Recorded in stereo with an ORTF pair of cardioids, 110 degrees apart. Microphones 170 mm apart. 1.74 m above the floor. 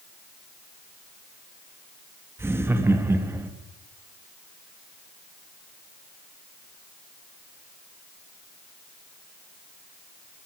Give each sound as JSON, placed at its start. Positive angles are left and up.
{"t": 2.4, "sound": "laughter", "azimuth_deg": -15, "distance_m": 3.5}